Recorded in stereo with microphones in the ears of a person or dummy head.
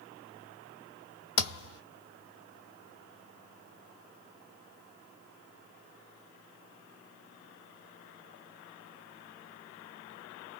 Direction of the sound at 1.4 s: 55° left (ahead or behind).